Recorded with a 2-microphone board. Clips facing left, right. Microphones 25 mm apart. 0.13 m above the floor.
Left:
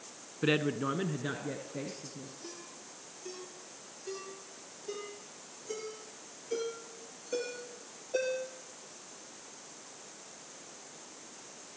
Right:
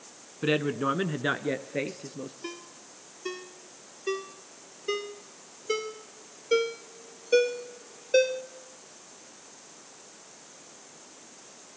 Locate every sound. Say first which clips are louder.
0.4 s a man speaking: right 3 dB; 5° right (ahead or behind), 1.1 m; by 2.3 s 65° right (ahead or behind), 2.5 m
2.4 s a ringtone: right 6 dB; 60° right (ahead or behind), 2 m